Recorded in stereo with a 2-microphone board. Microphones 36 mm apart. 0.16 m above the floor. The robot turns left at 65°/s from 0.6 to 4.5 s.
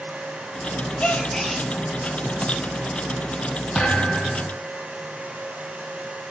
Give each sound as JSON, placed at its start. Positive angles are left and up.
{"t": 1.0, "sound": "a gasp", "azimuth_deg": 40, "distance_m": 1.3}
{"t": 3.8, "sound": "a thud", "azimuth_deg": 170, "distance_m": 2.0}